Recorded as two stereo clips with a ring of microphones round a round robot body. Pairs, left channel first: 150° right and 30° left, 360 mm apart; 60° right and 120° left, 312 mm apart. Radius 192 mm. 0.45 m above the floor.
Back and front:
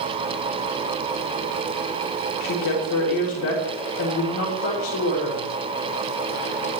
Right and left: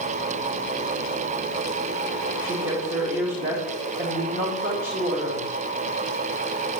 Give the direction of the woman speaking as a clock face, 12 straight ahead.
6 o'clock.